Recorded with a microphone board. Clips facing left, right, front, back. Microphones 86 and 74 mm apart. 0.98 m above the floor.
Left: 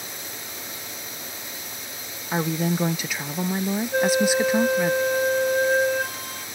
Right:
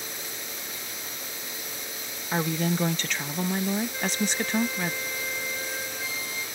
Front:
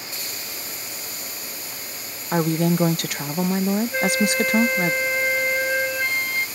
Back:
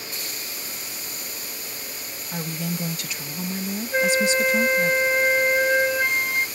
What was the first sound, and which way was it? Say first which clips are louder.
A woman speaking: left 2 dB, front 10 dB; 10° left.